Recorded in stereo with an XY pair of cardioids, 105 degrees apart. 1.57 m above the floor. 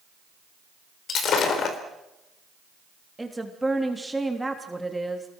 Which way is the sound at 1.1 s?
65° left.